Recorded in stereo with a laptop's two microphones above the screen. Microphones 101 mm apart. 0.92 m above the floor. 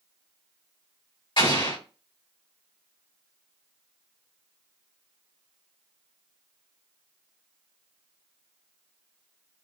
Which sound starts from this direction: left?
An explosion, at 1.4 s.